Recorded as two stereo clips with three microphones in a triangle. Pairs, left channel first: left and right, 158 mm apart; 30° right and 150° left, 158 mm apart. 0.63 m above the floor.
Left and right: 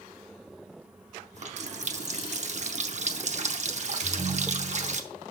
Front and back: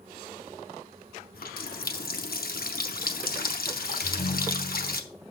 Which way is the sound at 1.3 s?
45° right.